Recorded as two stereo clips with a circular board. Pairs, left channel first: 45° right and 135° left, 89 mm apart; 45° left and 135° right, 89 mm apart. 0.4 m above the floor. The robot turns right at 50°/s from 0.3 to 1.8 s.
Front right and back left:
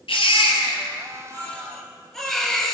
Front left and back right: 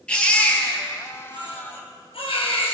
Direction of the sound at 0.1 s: 35° right.